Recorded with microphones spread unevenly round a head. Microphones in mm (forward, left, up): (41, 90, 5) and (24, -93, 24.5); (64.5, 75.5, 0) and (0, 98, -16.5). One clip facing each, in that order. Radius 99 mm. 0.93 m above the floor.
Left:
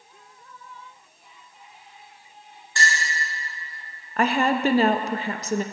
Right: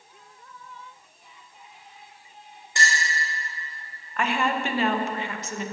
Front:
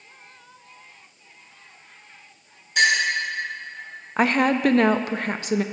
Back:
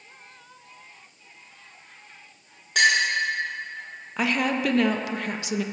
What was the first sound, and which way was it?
A clink, 170° right.